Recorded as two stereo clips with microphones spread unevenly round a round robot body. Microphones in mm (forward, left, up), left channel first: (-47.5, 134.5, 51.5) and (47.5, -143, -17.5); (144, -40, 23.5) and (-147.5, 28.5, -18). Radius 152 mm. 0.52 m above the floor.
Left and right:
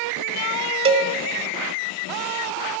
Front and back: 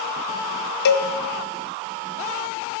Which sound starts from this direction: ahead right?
A cowbell, at 0.8 s.